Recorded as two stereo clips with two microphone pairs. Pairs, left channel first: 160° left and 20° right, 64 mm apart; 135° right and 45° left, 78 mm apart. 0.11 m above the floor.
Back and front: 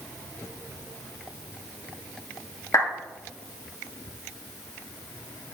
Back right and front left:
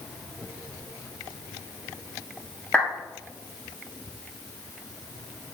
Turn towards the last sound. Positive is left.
turn(degrees=150)